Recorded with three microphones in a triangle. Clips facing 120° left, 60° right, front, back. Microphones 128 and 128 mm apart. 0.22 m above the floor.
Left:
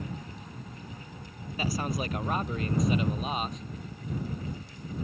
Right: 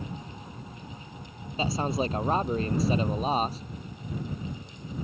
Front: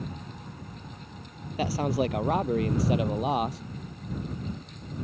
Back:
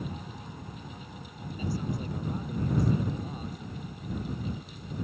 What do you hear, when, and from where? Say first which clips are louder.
1.6 s a man speaking: right 4 dB, front 8 dB; 5° left; by 3.6 s 5° right